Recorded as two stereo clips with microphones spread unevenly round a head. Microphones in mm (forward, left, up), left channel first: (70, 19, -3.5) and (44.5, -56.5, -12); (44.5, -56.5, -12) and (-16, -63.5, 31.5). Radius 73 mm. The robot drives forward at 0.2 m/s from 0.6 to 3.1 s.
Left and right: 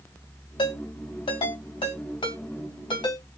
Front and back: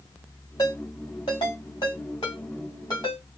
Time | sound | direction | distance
0.6 | a ringtone | 70° left | 3 m